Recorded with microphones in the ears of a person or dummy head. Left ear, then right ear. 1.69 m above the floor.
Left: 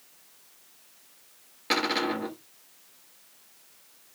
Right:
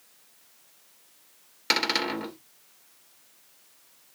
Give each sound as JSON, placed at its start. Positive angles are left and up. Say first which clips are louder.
{"t": 1.7, "sound": "a cupboard door", "louder": "right 1 dB", "side_deg": -50, "distance_m": 2.5}